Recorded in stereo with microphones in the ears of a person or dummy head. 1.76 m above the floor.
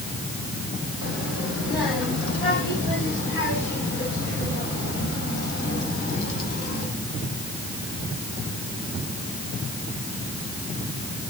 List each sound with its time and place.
1.0 s a child speaking: 75° left (ahead or behind), 4 m; by 6.9 s 55° left (ahead or behind), 7 m